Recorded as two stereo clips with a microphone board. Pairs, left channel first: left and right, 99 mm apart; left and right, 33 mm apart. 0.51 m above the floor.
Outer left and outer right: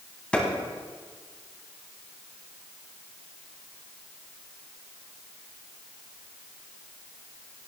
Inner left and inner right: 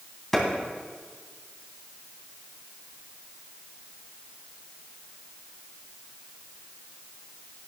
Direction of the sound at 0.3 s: 10° left (ahead or behind).